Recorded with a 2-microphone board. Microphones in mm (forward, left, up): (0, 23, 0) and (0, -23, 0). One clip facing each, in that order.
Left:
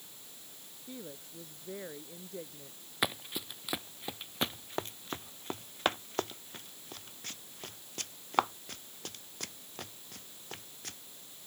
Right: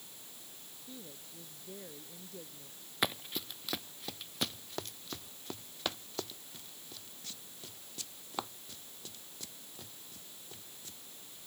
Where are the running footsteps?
5° left (ahead or behind); by 11.0 s 60° left (ahead or behind).